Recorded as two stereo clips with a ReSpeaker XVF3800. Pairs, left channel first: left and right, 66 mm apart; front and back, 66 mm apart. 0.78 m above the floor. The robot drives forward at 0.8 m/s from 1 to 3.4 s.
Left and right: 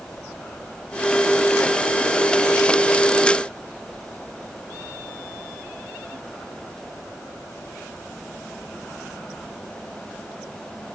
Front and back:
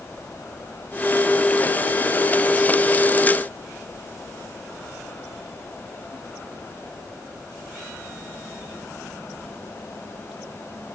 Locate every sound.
Only background noise.